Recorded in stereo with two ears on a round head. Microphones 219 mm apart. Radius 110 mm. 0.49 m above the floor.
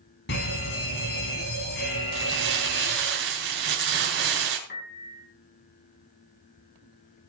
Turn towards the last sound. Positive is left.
turn(degrees=40)  # may be behind; listen again after turning